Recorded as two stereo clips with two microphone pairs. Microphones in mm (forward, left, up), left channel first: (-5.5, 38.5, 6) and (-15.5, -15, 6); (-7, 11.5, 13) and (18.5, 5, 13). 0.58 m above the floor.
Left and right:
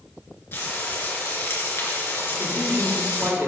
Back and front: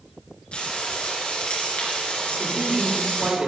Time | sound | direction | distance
0.5 | frying | 125° left | 3 m
2.3 | a man speaking | 65° right | 1.4 m